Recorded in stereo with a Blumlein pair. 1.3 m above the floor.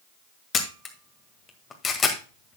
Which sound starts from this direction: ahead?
A camera shutter, at 0.5 s.